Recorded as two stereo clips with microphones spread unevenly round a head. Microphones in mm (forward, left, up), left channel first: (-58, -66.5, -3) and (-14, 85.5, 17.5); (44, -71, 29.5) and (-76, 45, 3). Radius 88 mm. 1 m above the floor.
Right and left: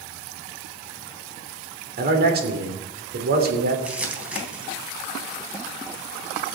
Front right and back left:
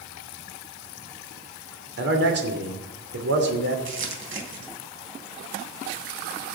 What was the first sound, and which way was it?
A man speaking, 105° left.